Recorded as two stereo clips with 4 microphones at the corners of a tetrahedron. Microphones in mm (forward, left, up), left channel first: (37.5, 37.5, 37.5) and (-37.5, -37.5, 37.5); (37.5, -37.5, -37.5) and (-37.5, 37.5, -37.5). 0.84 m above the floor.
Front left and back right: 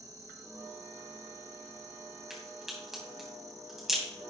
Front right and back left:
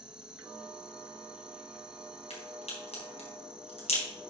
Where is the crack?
50° right, 3 m.